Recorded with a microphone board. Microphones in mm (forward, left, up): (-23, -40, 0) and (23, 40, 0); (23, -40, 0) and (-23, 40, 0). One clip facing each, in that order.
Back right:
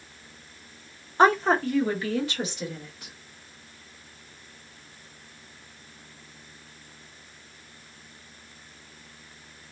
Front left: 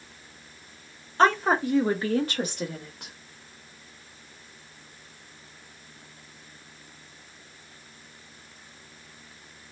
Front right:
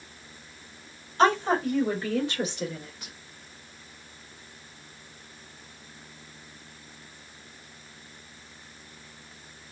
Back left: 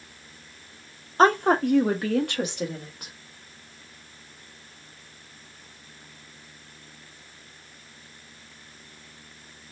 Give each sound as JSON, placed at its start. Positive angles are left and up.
{"t": 1.2, "sound": "a woman speaking", "azimuth_deg": 165, "distance_m": 0.6}